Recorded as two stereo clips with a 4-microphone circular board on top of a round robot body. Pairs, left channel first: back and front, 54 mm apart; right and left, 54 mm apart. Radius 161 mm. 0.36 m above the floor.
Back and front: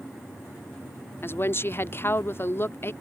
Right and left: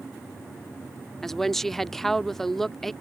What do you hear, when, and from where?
1.2 s a woman speaking: 170° right